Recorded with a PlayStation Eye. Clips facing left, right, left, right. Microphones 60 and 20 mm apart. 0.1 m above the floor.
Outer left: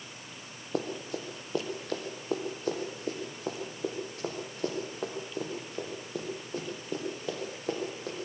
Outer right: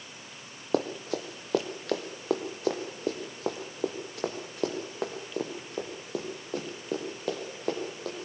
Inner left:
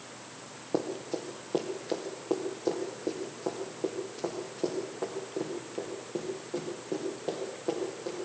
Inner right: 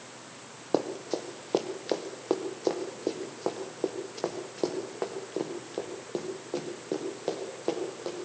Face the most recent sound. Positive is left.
turn(degrees=-80)